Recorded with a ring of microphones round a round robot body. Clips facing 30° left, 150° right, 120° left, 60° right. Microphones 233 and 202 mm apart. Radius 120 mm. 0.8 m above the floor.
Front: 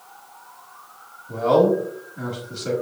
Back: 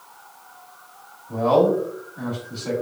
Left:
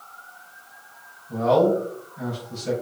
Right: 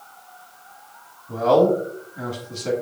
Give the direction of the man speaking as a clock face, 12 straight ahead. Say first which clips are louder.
Front 1 dB, right 2 dB; 1 o'clock.